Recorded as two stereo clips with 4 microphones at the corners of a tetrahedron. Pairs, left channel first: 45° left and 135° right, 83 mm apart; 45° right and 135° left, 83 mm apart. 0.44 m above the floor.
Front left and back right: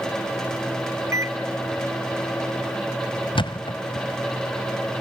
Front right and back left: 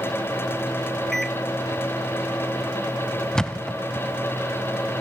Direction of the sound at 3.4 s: 35° left.